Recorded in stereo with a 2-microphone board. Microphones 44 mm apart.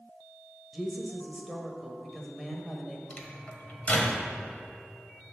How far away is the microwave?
About 1.2 m.